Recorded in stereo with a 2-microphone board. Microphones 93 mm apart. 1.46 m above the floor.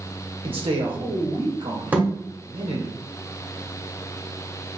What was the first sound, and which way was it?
A man speaking, 80° right.